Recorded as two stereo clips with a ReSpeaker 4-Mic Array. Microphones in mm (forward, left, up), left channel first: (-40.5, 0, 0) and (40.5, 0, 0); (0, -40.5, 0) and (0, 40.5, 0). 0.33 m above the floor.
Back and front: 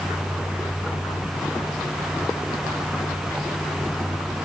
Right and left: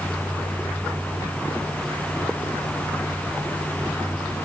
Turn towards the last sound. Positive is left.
No sound to turn to.